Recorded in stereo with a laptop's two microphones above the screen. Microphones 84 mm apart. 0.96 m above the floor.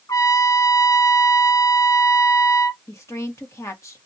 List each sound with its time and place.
0.1 s a trumpet: 40° left (ahead or behind), 0.7 m
2.9 s a woman speaking: 40° left (ahead or behind), 1.7 m